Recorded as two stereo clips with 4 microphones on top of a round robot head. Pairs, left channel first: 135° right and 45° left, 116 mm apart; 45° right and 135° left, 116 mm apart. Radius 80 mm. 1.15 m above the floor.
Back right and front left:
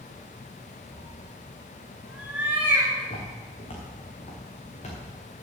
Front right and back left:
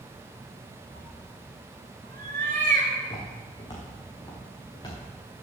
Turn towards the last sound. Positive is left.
turn(degrees=-100)